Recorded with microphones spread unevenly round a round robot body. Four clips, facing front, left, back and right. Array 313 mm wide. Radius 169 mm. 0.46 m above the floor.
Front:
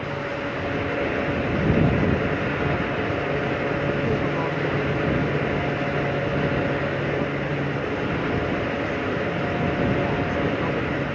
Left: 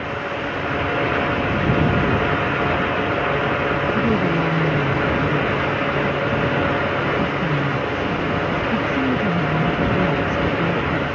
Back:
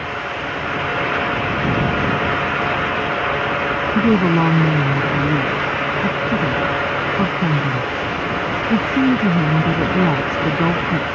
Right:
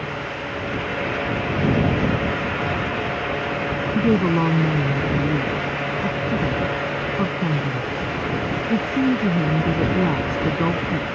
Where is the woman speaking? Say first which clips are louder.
Right 1 dB, back 8 dB; 165° right.